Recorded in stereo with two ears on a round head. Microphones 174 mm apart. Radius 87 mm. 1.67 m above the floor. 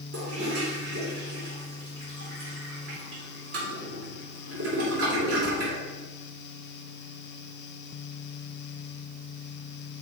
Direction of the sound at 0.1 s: 55° right (ahead or behind).